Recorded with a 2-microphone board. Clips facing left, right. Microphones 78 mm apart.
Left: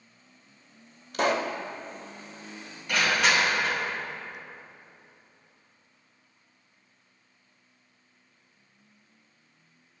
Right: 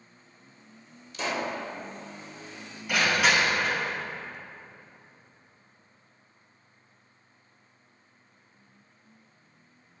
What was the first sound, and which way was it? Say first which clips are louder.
A pop: left 5 dB; 55° left (ahead or behind).